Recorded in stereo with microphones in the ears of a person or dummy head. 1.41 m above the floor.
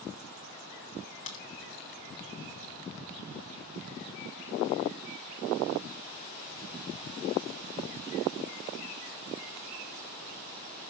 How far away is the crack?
About 1.8 m.